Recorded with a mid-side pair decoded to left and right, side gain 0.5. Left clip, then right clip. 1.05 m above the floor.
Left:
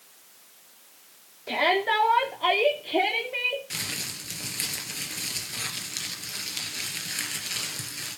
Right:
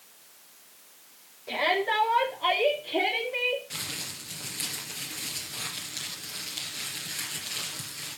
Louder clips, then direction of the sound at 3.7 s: Left 3 dB; 40° left.